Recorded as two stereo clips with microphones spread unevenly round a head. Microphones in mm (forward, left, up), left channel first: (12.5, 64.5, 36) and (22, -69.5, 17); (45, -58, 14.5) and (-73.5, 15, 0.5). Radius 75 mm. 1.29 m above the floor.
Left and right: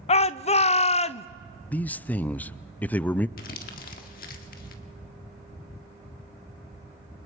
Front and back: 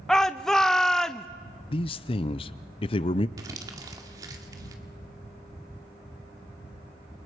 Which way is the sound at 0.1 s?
60° left.